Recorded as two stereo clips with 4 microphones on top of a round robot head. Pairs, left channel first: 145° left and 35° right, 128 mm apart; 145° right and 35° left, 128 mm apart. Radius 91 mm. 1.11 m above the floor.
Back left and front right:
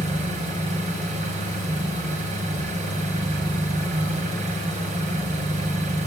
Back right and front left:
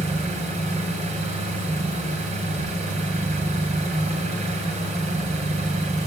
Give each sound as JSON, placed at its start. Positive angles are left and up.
{"t": 0.0, "sound": "an engine running", "azimuth_deg": 0, "distance_m": 3.5}